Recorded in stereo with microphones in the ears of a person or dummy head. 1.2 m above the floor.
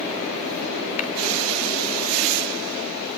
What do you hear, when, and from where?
1.0 s a clap: 45° left (ahead or behind), 3.5 m